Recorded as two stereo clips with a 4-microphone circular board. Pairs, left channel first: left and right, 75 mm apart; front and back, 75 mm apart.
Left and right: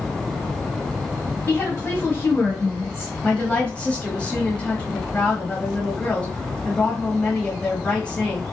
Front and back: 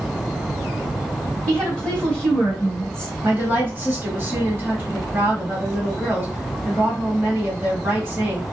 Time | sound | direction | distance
1.5 | a woman speaking | 65° left | 1.5 m
3.2 | a woman speaking | 150° left | 1.3 m